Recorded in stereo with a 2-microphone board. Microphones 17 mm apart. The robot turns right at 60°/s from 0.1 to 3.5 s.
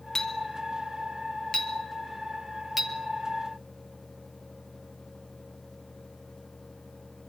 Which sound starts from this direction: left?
A clink, at 0.1 s.